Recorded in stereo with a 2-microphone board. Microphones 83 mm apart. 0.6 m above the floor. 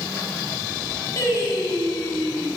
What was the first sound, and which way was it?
Singing, 40° left (ahead or behind).